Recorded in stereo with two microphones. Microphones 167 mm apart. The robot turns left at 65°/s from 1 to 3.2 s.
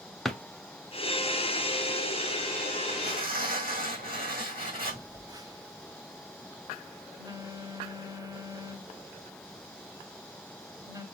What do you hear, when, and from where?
0.2 s a drawer: centre (ahead or behind), 0.6 m
2.9 s tearing paper: 85° right, 2.5 m; by 5.0 s 65° right (ahead or behind), 2.5 m
4.9 s a phone buzzing: 25° right (ahead or behind), 0.7 m